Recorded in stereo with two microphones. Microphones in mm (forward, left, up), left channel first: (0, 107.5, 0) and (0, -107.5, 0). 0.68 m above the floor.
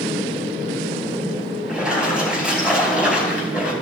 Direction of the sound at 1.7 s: 5° right (ahead or behind).